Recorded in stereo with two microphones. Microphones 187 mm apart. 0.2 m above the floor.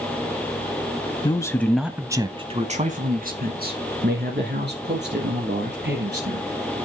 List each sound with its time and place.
1.2 s a man speaking: 25° left (ahead or behind), 1.1 m; by 6.8 s 70° right (ahead or behind), 4.5 m